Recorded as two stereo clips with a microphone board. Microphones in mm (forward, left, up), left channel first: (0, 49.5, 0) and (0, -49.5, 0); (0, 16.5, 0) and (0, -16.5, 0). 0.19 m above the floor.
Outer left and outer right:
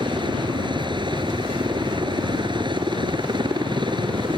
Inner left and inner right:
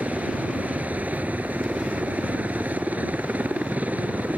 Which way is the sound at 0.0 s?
50° right (ahead or behind).